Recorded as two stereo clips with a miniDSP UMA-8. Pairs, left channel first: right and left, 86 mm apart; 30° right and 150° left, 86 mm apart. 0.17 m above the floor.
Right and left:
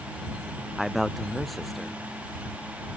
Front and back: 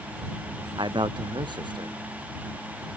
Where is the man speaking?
Straight behind.